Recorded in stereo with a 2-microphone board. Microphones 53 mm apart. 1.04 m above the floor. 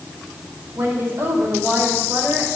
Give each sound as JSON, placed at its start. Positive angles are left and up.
{"t": 0.8, "sound": "a woman speaking", "side_deg": -55, "distance_m": 4.0}